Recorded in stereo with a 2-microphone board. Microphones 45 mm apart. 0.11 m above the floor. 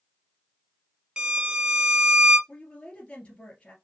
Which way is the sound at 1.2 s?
20° right (ahead or behind).